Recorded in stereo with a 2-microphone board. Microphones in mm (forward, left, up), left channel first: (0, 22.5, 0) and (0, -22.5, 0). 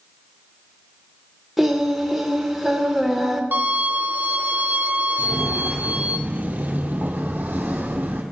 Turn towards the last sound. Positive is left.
turn(degrees=-45)  # may be behind; listen again after turning